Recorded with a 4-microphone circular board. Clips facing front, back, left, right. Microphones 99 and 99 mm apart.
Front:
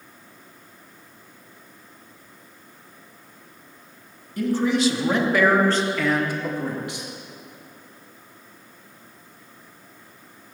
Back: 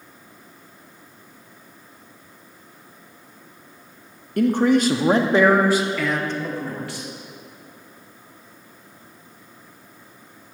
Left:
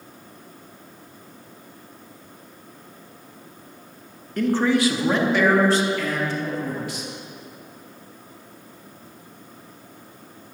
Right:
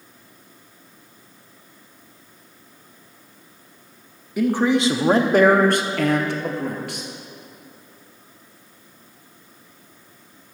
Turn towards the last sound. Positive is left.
turn(degrees=-65)